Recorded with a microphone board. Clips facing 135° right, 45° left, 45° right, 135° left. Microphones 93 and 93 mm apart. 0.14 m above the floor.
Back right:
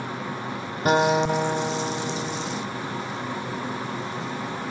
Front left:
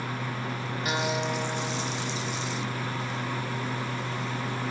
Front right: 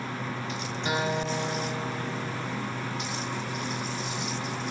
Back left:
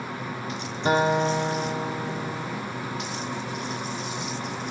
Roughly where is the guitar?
Behind.